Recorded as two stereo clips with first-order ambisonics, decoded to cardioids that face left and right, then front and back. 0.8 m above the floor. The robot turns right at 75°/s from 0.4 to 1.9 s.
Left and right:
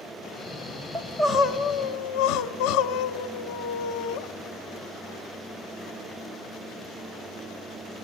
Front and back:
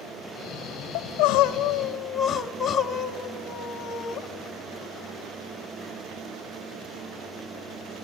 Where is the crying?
5° right, 0.9 m; by 4.2 s 70° left, 0.9 m.